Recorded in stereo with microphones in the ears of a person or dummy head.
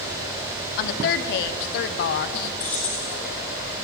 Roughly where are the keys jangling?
Centre.